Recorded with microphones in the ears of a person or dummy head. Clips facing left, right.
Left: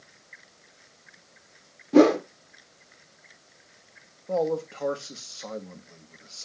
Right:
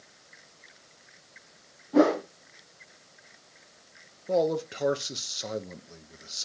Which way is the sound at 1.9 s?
40° left (ahead or behind).